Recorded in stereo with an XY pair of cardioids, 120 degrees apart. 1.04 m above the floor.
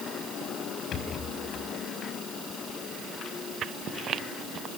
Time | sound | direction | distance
0.9 | a rattle | 55° left | 5 m